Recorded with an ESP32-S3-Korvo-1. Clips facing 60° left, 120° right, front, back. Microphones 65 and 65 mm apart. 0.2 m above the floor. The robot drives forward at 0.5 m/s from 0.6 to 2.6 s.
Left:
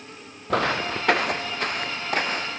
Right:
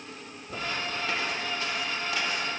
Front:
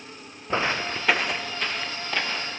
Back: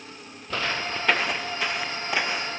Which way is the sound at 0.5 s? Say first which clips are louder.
Left 9 dB, front 3 dB; 65° left.